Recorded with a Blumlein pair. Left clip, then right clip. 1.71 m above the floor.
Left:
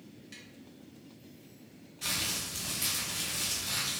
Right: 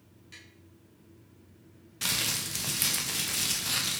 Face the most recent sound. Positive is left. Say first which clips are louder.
# right 3 dB
turn(degrees=-35)